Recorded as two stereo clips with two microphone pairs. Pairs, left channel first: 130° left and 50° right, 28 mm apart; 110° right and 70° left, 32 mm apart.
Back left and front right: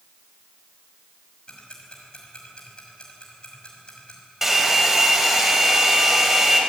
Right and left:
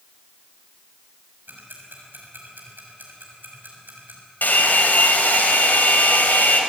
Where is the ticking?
75° left, 6 m.